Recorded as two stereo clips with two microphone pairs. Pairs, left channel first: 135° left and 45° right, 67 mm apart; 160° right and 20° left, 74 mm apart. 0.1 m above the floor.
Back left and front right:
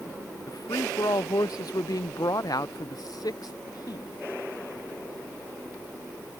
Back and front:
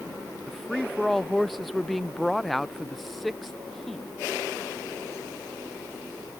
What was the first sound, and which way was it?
A woman speaking, 110° left.